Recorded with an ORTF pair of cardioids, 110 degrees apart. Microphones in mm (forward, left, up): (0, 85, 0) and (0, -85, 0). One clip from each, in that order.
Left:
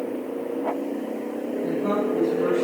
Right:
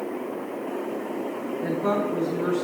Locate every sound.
1.6 s a woman speaking: 55° right, 9 m